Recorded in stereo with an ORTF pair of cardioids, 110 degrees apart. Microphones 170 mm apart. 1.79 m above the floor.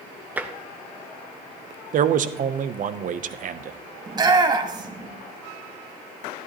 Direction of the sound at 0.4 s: 10° right.